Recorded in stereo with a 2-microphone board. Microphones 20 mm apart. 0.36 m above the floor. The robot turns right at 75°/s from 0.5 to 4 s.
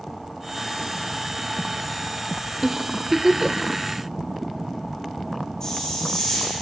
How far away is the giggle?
About 0.9 m.